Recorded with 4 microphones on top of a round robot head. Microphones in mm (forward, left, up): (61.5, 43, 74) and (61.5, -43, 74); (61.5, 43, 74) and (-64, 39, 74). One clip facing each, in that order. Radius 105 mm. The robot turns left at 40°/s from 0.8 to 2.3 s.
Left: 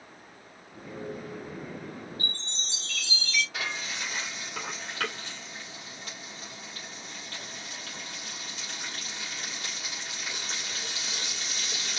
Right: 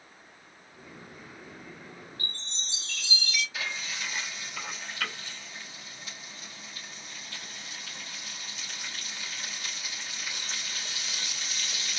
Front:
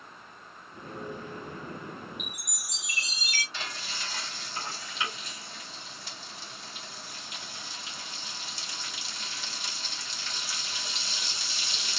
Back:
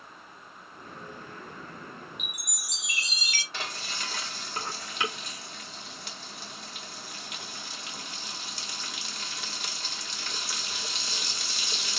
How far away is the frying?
About 2 m.